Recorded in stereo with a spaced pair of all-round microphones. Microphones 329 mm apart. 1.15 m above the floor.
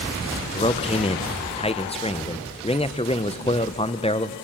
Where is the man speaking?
20° left (ahead or behind), 0.5 m.